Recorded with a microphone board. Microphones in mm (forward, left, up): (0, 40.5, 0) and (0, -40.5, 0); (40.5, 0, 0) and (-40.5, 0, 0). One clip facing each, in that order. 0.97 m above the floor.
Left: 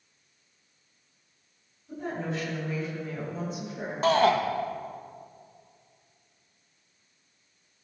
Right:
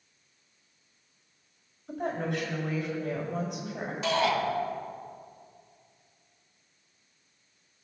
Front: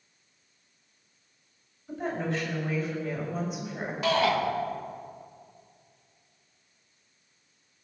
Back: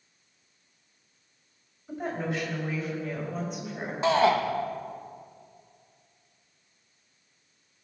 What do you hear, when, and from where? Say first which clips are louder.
1.9 s a woman speaking: right 2 dB, front 1 dB; 100° right, 4 m; by 3.9 s 85° right, 3.5 m
4.0 s a shout: left 5 dB, back 3 dB; 125° left, 1.1 m